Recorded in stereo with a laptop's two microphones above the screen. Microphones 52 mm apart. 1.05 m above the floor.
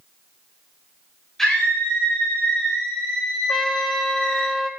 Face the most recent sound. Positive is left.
turn(degrees=5)  # may be behind; listen again after turning